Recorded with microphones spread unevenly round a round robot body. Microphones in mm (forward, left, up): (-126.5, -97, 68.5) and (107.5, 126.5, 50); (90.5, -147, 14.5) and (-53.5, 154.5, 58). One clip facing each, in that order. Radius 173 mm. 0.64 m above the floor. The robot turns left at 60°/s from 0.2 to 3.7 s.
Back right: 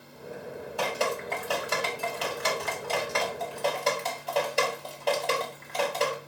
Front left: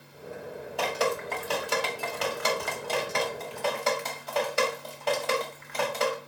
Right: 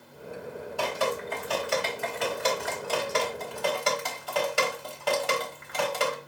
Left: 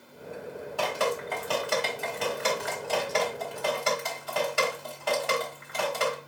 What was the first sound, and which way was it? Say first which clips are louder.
Dripping: front left 2 dB, even; 140° left.